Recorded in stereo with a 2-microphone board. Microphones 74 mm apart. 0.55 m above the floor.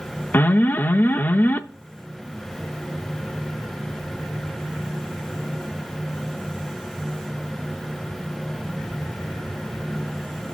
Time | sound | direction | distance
0.3 | an alarm | 25° left (ahead or behind) | 0.5 m